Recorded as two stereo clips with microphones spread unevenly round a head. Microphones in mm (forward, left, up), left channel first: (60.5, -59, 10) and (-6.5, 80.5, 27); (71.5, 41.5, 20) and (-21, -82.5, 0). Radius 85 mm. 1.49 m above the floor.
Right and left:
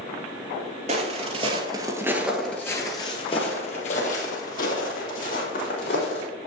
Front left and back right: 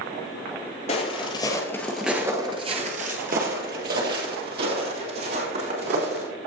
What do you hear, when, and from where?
0.9 s footsteps: 90° left, 2.5 m; by 6.2 s 110° right, 5.5 m